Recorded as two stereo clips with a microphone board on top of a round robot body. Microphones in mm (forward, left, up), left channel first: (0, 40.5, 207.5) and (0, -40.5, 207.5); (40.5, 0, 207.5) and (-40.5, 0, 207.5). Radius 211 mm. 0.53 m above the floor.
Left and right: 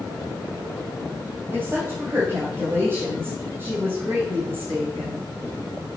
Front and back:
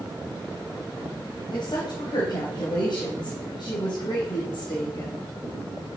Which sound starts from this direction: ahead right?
A woman speaking, at 1.5 s.